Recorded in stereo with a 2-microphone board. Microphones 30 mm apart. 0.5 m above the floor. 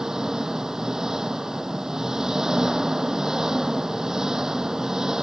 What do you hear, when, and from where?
0.0 s an engine running: 15° right (ahead or behind)